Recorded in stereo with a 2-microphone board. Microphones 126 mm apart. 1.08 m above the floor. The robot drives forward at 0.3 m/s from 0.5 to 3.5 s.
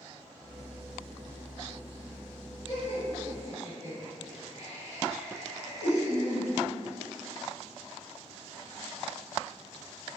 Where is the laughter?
75° left (ahead or behind), 1.3 m; by 6.5 s 70° left (ahead or behind), 1.3 m.